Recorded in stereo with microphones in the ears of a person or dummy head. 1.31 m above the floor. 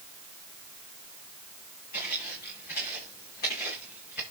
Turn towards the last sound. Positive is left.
turn(degrees=55)  # may be behind; listen again after turning